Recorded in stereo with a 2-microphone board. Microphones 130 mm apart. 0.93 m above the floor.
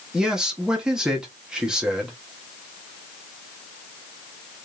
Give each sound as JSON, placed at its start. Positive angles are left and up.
{"t": 0.1, "sound": "a man speaking", "side_deg": -5, "distance_m": 1.4}